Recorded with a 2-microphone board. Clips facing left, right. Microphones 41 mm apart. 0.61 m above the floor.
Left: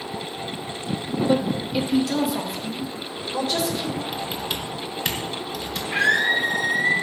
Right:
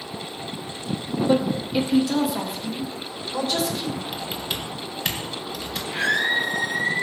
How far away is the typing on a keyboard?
About 1.9 m.